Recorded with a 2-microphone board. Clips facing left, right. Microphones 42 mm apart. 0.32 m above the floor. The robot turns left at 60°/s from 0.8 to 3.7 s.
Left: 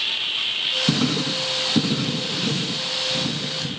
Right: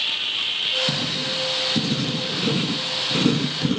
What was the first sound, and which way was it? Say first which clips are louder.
Writing: left 4 dB; 80° left.